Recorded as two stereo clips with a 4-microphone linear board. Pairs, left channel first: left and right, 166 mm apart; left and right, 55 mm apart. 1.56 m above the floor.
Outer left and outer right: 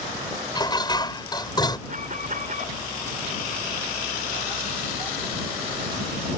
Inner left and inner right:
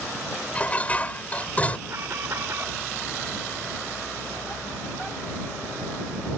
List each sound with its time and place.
0.6 s dishes clattering: 25° left (ahead or behind)
1.9 s an alarm: 55° right (ahead or behind)